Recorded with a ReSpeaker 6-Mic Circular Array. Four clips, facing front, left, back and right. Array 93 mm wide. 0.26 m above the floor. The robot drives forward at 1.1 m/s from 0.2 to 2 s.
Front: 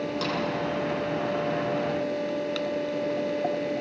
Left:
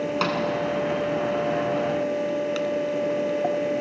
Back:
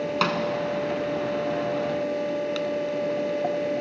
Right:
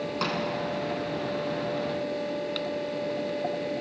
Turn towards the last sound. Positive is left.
turn(degrees=170)